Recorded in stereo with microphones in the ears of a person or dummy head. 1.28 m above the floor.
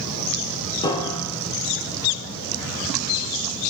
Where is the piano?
20° left (ahead or behind), 1.2 m.